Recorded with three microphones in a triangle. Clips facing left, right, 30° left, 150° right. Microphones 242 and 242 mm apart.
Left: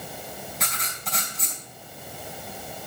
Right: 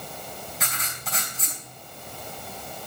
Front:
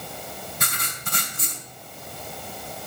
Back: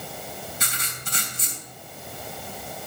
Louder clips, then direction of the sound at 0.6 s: Left 1 dB, front 2 dB; straight ahead.